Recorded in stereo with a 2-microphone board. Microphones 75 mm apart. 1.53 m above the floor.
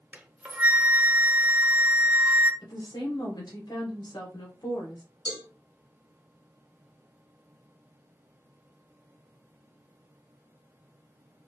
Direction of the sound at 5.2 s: 65° left (ahead or behind).